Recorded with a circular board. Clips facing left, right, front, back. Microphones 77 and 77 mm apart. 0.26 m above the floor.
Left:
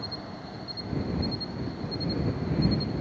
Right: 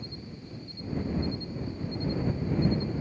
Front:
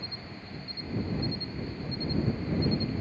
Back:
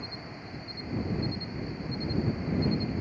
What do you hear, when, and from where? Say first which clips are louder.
0.0 s an insect: left 4 dB, back 2 dB; 105° left